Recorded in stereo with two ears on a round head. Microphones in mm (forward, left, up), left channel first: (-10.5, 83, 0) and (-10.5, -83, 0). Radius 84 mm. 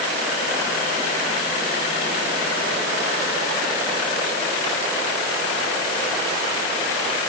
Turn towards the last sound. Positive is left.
No sound to turn to.